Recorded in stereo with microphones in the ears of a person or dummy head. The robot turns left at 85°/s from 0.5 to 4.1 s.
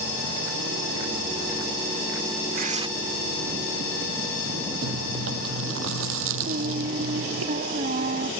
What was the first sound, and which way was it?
Tearing paper, 45° right (ahead or behind).